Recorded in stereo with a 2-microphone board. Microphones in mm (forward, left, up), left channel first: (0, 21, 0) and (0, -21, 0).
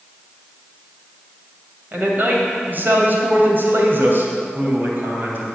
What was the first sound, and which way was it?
A man speaking, 45° right (ahead or behind).